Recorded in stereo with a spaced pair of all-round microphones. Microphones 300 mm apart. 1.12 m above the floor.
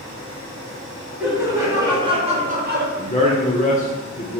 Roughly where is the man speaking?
Left.